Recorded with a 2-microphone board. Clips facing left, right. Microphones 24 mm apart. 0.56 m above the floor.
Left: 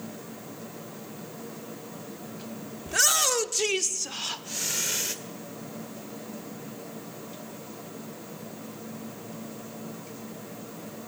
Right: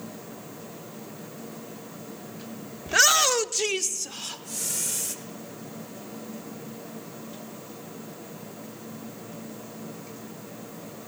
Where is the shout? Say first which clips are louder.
Right 4 dB; 35° right (ahead or behind), 1.0 m; by 5.2 s 35° left (ahead or behind), 1.6 m.